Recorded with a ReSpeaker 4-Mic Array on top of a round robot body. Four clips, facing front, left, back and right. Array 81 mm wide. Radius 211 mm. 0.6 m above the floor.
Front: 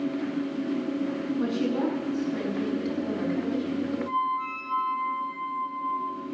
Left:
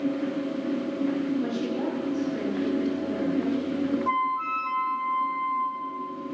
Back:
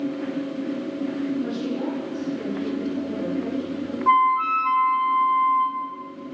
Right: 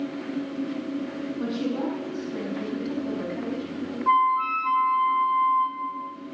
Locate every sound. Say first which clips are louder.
1.4 s a woman speaking: even, even; 30° right, 8.5 m; by 4.0 s 55° right, 6.5 m
4.1 s a flute: right 5 dB, back 10 dB; 170° right, 1.9 m